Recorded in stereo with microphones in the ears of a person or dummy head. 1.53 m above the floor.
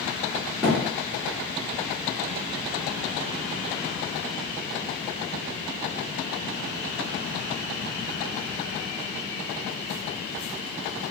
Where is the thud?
Centre (ahead or behind), 1.2 m.